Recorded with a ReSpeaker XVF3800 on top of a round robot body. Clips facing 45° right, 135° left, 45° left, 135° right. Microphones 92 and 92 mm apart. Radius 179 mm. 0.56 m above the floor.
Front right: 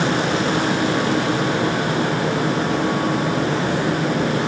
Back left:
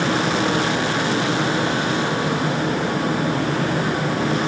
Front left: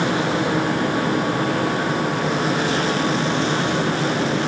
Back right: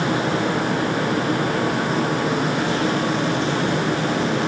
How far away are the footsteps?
I don't hear footsteps.